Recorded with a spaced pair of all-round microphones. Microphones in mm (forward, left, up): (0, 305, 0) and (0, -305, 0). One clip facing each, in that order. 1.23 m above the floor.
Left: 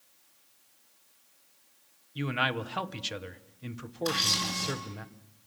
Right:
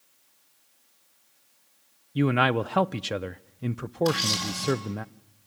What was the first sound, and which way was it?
A man speaking, 70° right (ahead or behind).